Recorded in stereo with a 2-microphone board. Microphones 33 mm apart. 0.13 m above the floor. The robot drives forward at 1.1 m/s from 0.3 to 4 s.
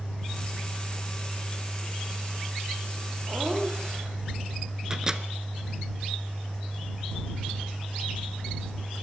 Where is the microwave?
20° right (ahead or behind), 1.2 m.